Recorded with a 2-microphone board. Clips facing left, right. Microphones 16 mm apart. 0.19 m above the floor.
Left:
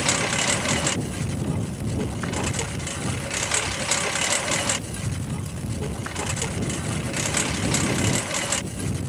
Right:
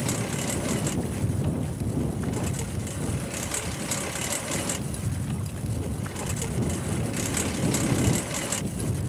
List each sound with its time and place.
0.0 s a lawn mower: 45° left (ahead or behind); by 9.1 s 25° left (ahead or behind)